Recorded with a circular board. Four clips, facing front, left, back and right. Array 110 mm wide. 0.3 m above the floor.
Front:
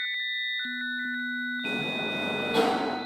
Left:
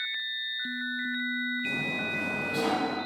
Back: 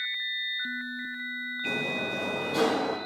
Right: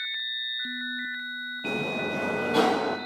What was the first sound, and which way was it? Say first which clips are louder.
A sliding door: right 4 dB, even; 70° right.